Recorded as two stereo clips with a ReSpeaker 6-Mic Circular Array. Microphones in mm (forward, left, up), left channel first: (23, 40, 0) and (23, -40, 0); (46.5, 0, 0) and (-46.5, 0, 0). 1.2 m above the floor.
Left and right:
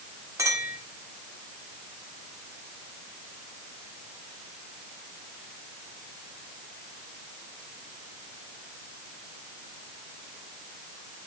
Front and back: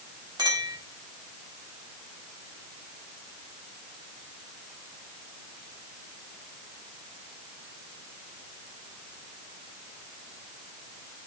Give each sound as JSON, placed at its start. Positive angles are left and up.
{"t": 0.4, "sound": "a clink", "azimuth_deg": -140, "distance_m": 2.0}